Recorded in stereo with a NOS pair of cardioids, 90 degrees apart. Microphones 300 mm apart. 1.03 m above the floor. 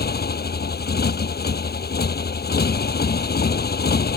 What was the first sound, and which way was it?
A motorcycle, 30° left.